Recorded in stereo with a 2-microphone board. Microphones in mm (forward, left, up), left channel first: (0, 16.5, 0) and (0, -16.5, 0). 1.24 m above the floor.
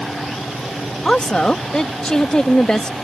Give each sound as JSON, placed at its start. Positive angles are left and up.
{"t": 1.1, "sound": "a woman speaking", "side_deg": 30}